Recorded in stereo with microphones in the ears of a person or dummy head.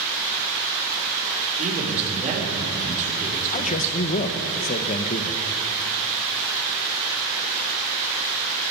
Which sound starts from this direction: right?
A man speaking, at 1.6 s.